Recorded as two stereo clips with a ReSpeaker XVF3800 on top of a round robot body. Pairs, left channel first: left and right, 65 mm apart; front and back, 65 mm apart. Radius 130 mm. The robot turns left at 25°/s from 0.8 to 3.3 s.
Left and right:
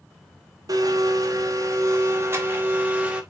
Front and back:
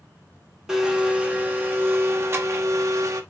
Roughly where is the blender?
Right.